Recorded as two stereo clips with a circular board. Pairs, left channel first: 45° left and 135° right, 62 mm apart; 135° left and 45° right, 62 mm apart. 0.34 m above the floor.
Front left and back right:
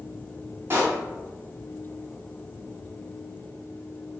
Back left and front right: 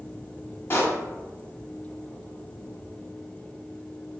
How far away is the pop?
About 1.4 m.